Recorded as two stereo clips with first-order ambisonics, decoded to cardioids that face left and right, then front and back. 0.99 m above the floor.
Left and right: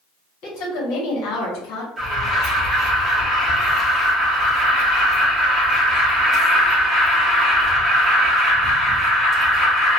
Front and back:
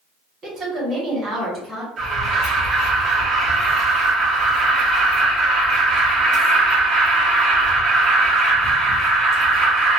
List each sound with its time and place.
0.4 s a woman speaking: 115° left, 1.8 m; by 1.9 s 95° left, 1.2 m
2.0 s an alarm: 165° left, 1.0 m